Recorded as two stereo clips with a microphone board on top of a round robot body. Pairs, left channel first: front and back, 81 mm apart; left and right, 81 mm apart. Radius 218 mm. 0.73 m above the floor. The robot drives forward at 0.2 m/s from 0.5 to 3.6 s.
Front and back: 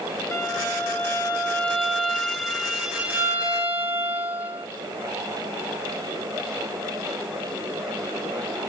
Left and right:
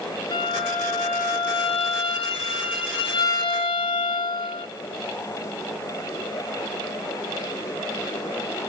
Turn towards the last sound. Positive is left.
turn(degrees=110)